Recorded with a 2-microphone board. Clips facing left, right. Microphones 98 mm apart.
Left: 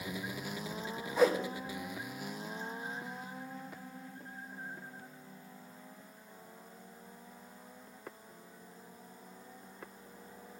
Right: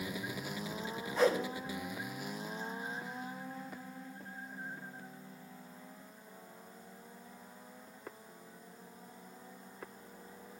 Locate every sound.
1.2 s a whoosh: 5° left (ahead or behind), 2.5 m